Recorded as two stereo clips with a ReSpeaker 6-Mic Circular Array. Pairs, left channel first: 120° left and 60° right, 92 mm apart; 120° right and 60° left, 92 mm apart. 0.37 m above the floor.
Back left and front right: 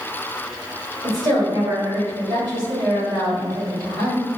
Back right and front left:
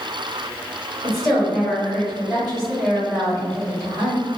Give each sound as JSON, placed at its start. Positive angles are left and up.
{"t": 1.0, "sound": "a woman speaking", "azimuth_deg": -30, "distance_m": 1.9}